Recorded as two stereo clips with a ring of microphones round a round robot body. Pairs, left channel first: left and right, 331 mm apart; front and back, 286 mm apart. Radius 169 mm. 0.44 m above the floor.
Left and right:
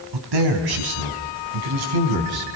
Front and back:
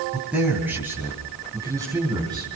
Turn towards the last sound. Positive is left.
turn(degrees=-100)